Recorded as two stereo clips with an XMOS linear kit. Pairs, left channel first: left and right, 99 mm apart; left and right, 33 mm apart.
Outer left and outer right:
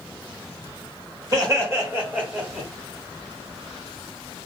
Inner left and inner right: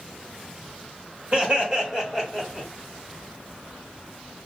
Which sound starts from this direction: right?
Laughter, at 1.3 s.